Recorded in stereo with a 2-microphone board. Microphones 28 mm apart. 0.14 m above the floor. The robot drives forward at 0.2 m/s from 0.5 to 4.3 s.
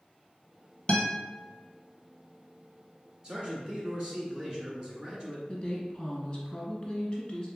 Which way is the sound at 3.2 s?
30° right (ahead or behind).